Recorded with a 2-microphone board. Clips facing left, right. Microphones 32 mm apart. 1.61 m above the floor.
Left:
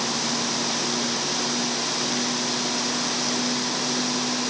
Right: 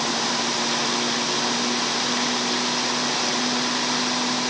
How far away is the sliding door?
No sliding door in this recording.